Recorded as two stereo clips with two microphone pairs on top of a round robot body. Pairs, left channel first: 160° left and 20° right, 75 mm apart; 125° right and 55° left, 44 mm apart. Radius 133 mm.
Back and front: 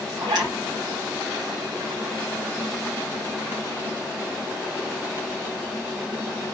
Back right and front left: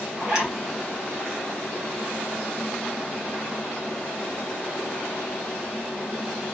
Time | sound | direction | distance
0.2 | a zipper | 15° right | 4 m